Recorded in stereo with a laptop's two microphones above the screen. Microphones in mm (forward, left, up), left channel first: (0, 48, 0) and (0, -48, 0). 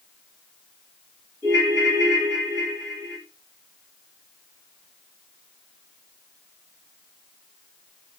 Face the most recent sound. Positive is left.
turn(degrees=-30)  # may be behind; listen again after turning